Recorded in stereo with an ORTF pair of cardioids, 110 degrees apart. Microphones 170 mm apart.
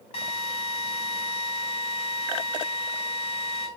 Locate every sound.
0.1 s a drill: 35° left, 4 m